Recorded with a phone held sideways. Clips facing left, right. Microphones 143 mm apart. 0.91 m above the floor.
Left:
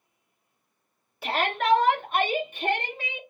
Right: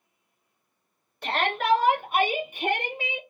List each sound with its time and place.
1.2 s a shout: 5° left (ahead or behind), 0.9 m; by 3.2 s 20° right (ahead or behind), 1.7 m